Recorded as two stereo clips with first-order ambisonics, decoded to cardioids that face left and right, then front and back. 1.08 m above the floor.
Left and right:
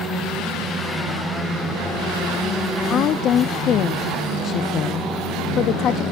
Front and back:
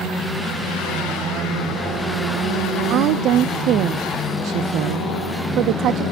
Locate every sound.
2.9 s a woman speaking: 140° left, 0.6 m